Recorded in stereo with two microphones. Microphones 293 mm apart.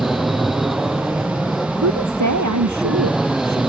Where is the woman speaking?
70° right (ahead or behind).